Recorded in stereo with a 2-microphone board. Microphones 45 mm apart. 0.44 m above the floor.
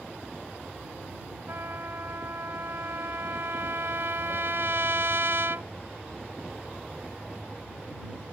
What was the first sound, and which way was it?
A trumpet, 60° right (ahead or behind).